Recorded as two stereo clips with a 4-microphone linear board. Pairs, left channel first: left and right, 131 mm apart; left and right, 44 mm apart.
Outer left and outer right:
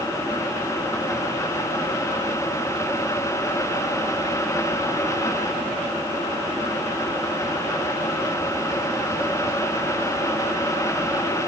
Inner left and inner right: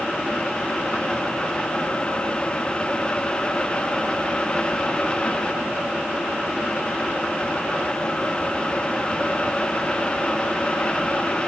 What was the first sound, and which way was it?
Only background noise.